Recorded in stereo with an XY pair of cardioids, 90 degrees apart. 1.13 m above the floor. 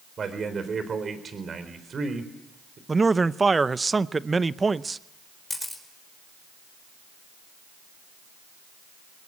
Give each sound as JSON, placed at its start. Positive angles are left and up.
{"t": 0.2, "sound": "a man speaking", "azimuth_deg": -45, "distance_m": 4.0}
{"t": 2.9, "sound": "a man speaking", "azimuth_deg": -25, "distance_m": 0.7}
{"t": 5.5, "sound": "a camera shutter", "azimuth_deg": 15, "distance_m": 4.5}